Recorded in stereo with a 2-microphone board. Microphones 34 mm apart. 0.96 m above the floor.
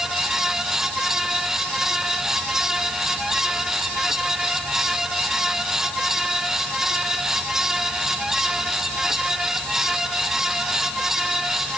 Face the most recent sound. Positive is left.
No sound to turn to.